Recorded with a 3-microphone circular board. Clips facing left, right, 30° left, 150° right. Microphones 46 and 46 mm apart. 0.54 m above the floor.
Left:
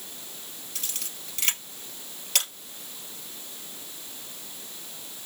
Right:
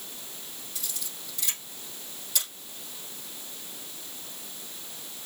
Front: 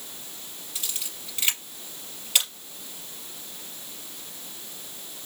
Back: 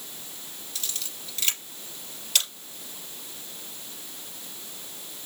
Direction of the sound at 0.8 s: 95° left.